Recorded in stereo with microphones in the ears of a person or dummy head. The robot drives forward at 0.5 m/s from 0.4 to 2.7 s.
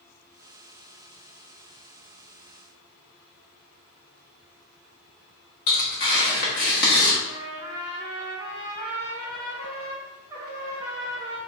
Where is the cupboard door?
No cupboard door in this recording.